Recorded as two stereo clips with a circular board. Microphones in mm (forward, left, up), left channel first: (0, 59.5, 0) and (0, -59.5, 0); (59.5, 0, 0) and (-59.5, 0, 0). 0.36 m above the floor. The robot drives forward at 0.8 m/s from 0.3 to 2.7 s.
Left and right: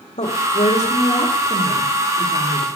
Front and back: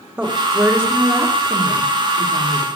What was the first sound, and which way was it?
A woman speaking, 100° left.